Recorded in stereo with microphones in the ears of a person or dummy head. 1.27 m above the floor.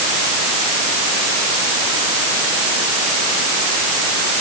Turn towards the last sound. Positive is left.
No sound to turn to.